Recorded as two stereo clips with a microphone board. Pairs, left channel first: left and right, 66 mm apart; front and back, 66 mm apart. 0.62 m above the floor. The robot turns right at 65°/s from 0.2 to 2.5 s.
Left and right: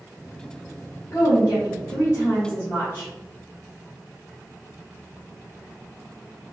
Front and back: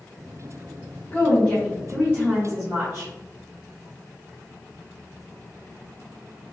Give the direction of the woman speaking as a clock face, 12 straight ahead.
10 o'clock.